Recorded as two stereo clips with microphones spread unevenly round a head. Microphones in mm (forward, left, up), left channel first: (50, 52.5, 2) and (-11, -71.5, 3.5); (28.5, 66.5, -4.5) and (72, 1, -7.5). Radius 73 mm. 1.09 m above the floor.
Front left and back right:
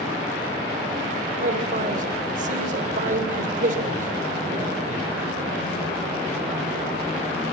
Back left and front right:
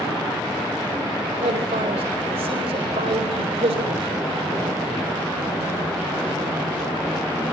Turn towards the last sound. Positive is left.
turn(degrees=-80)